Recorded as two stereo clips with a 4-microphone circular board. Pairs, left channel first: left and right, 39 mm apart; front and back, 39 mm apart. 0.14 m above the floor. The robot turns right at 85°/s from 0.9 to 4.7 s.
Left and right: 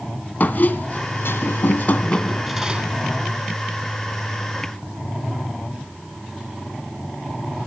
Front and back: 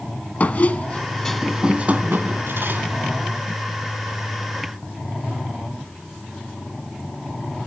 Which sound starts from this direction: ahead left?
A squeak, at 0.4 s.